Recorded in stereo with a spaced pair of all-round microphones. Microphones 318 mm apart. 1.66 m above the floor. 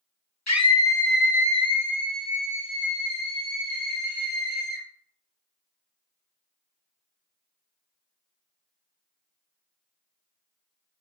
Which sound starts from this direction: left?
A scream, at 0.5 s.